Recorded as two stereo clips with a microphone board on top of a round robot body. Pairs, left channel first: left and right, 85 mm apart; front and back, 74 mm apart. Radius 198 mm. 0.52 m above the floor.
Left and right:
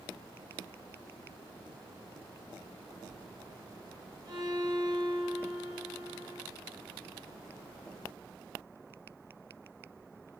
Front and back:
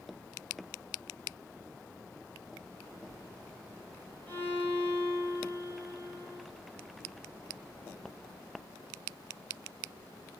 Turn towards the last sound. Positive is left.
turn(degrees=-65)